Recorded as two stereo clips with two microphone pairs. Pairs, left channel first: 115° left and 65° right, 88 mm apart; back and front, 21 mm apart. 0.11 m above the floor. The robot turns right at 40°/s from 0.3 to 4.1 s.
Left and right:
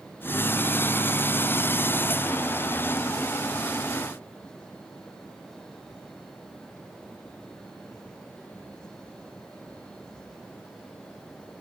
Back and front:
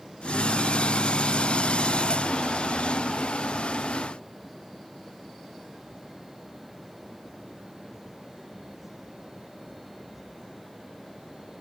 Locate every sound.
Only background noise.